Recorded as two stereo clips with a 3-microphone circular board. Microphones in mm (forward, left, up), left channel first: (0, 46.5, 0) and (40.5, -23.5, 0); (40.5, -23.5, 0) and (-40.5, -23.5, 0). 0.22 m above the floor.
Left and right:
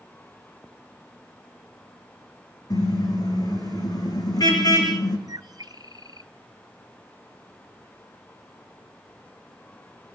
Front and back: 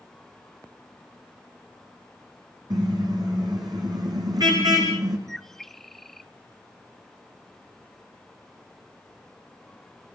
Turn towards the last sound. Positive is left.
turn(degrees=-85)